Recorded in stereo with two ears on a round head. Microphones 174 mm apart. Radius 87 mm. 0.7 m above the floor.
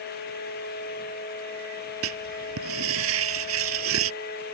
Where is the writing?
85° right.